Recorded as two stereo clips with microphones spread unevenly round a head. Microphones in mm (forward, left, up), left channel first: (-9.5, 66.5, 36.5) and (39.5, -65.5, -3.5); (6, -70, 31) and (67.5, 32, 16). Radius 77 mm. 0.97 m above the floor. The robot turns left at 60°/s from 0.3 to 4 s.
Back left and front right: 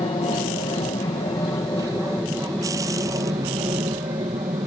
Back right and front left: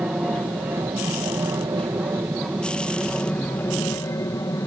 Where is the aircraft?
125° left; by 4.7 s 85° right.